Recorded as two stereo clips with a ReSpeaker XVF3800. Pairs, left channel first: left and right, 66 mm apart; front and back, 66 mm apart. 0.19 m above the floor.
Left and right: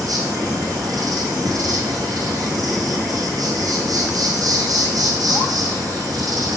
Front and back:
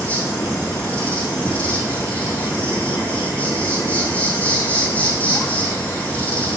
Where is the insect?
70° right, 2.5 m.